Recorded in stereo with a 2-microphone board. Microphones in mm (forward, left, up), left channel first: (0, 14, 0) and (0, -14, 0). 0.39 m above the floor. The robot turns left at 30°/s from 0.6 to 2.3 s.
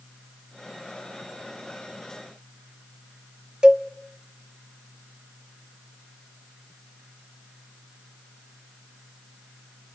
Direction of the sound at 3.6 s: 30° right (ahead or behind).